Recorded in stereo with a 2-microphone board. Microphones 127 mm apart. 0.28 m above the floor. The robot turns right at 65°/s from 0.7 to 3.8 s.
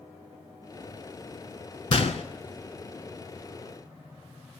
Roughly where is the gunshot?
Left.